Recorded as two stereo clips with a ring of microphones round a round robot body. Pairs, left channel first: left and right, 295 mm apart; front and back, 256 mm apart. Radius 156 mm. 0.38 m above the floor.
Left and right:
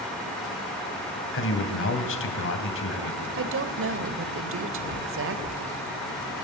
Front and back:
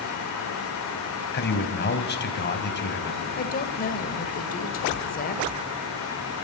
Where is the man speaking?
45° left, 3 m.